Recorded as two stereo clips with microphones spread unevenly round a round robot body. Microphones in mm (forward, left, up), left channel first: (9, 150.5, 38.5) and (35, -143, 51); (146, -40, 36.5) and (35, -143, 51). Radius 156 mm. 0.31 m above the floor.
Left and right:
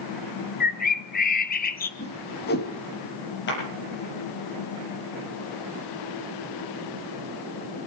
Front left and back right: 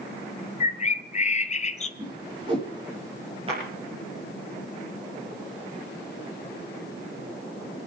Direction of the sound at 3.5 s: 150° left.